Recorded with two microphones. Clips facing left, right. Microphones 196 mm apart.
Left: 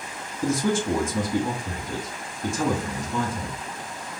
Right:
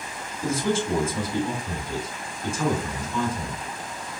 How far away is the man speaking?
About 2.5 m.